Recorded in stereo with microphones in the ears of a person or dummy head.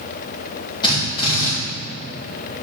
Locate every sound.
0.8 s a drill: 25° left (ahead or behind), 2 m